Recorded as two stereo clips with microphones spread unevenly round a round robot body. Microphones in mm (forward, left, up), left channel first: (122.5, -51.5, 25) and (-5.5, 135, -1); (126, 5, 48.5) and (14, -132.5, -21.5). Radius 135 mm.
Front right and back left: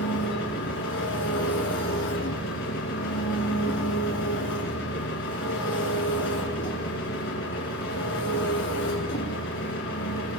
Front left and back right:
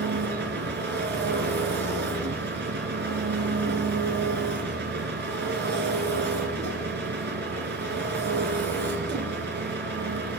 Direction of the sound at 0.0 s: 110° right.